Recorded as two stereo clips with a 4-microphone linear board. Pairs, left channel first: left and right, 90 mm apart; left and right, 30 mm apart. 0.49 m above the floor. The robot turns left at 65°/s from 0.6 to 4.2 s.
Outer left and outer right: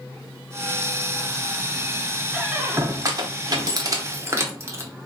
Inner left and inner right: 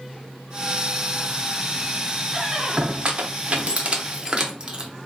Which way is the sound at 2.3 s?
10° right (ahead or behind).